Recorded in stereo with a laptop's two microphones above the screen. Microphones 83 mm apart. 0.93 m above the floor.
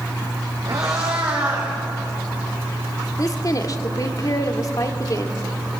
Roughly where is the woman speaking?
Left.